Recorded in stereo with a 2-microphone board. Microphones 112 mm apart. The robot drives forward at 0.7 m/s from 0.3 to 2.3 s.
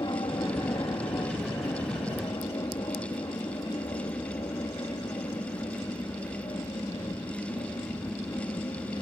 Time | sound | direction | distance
0.0 | an aircraft | 40° left (ahead or behind) | ?